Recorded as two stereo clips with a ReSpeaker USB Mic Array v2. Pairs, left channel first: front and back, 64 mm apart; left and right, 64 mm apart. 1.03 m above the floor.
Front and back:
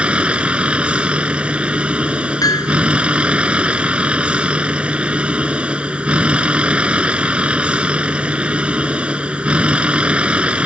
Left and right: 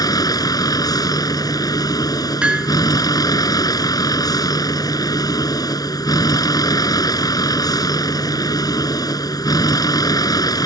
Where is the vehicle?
105° left.